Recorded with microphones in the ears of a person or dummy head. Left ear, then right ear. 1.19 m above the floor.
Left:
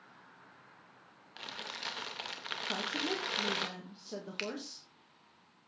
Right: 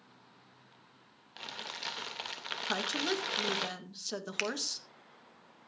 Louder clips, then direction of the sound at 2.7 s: Right 3 dB; 50° right (ahead or behind).